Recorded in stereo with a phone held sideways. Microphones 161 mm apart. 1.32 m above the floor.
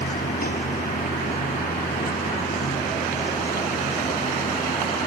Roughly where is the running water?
Left.